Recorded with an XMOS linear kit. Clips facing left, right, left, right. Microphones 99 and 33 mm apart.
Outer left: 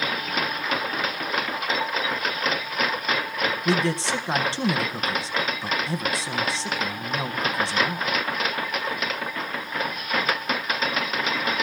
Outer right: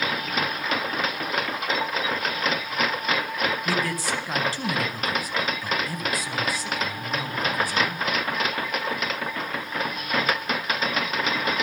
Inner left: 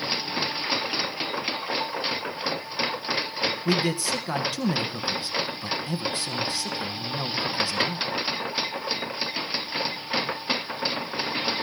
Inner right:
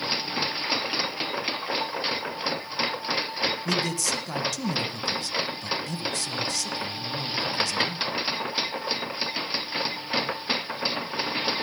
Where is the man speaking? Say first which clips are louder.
Outer left 3 dB, inner left 2 dB; 25° left (ahead or behind), 1.2 m.